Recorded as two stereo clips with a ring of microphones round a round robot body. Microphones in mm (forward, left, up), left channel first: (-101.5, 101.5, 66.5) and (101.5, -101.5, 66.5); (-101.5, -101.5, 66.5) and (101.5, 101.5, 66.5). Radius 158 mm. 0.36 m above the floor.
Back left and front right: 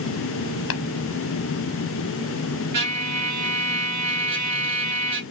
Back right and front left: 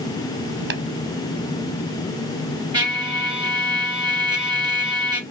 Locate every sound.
0.7 s tapping: 95° left, 0.9 m
2.7 s a trumpet: 30° right, 2.5 m